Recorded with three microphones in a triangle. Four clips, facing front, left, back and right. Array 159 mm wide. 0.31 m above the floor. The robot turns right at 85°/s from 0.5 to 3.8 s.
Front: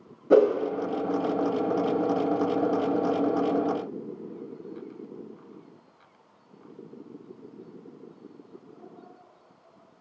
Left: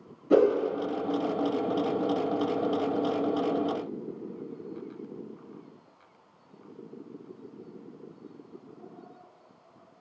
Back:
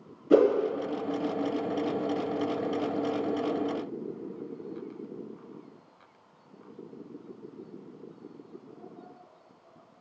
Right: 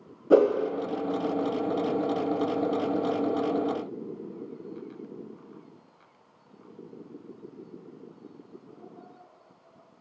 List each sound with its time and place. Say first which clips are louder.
0.3 s a whoosh: right 2 dB, front 2 dB; 40° right, 1.0 m